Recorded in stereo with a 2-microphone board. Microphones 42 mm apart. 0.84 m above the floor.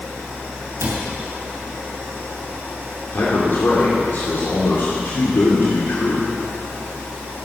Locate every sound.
0.8 s a cupboard door: 85° right, 3.5 m
3.1 s a man speaking: 50° left (ahead or behind), 2.5 m